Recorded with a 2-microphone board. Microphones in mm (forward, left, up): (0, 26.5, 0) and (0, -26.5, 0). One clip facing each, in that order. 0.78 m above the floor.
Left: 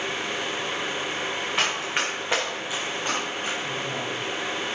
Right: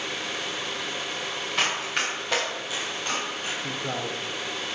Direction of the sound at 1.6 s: 15° left (ahead or behind).